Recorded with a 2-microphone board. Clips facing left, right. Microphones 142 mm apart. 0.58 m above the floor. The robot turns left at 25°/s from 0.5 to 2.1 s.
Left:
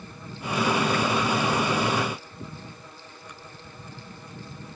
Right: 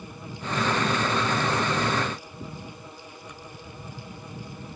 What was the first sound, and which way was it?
Only background noise.